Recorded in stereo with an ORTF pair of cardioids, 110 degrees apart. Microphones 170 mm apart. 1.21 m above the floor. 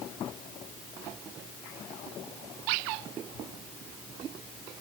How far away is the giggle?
I don't hear a giggle.